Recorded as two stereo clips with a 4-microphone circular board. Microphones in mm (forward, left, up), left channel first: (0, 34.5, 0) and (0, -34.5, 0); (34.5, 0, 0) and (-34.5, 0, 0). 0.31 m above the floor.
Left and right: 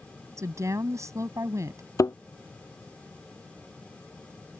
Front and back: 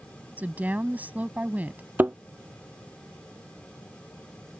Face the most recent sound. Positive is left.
turn(degrees=120)